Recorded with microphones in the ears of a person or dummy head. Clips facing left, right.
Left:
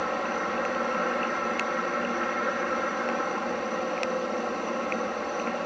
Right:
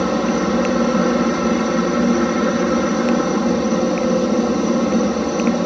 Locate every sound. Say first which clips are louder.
0.0 s a helicopter: right 13 dB; 60° right (ahead or behind)